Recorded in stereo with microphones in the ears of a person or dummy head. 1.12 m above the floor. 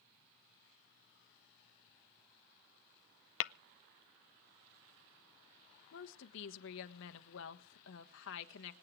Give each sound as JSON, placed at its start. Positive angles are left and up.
{"t": 3.4, "sound": "tapping", "side_deg": 60, "distance_m": 0.5}
{"t": 5.9, "sound": "a woman speaking", "side_deg": 60, "distance_m": 1.4}